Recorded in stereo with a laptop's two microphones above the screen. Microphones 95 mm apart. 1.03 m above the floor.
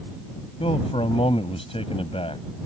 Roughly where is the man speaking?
Left.